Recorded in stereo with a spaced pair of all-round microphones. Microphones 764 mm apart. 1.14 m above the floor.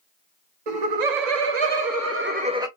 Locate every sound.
0.7 s laughter: 60° right (ahead or behind), 0.9 m; by 2.7 s 5° right (ahead or behind), 1.1 m